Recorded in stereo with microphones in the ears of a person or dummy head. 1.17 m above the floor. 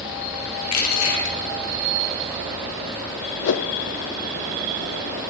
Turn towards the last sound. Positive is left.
turn(degrees=65)  # may be behind; listen again after turning